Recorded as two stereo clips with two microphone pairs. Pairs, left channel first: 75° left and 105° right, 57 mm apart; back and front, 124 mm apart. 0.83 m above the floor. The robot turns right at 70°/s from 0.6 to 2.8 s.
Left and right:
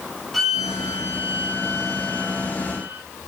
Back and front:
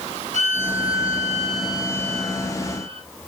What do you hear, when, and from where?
0.3 s a violin: 165° left, 3.5 m; by 3.0 s 40° right, 3.5 m